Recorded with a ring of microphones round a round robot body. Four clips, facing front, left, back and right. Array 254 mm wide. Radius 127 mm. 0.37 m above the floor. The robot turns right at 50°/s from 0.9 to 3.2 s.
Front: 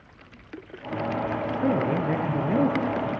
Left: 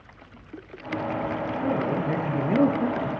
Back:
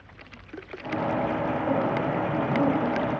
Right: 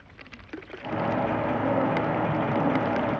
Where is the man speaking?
10° left, 5.5 m; by 3.1 s 85° left, 5.5 m.